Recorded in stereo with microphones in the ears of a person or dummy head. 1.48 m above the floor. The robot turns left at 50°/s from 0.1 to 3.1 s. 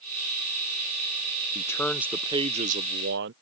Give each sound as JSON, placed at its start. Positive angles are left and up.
{"t": 1.6, "sound": "a man speaking", "azimuth_deg": 20}